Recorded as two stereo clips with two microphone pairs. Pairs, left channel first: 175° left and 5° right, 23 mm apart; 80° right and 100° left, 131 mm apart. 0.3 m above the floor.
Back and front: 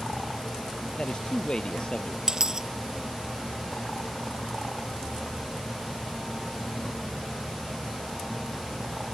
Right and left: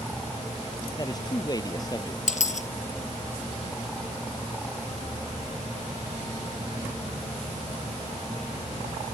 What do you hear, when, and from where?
1.0 s a man speaking: 140° right
2.3 s a dropped coin: 65° right